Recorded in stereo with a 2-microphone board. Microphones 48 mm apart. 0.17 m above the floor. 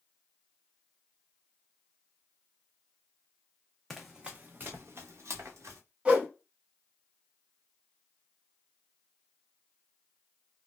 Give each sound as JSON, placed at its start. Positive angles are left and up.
{"t": 3.9, "sound": "running footsteps", "side_deg": 5, "distance_m": 0.5}
{"t": 6.0, "sound": "a whoosh", "side_deg": -20, "distance_m": 0.9}